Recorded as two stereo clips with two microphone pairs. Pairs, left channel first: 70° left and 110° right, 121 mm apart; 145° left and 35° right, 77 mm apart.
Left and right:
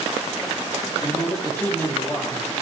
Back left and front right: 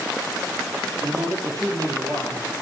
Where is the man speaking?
Straight ahead, 4 m.